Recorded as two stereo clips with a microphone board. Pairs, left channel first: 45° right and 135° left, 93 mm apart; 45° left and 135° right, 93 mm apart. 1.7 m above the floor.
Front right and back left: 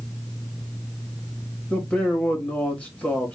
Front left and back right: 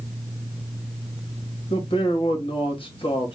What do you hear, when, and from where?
1.7 s a man speaking: 30° left, 3 m